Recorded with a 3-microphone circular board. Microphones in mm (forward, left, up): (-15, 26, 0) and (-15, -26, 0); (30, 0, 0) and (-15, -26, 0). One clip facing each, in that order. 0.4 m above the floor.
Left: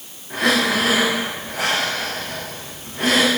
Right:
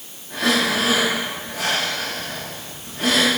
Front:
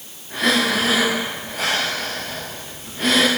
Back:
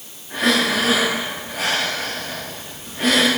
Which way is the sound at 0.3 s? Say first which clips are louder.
Left 2 dB, even; 120° left.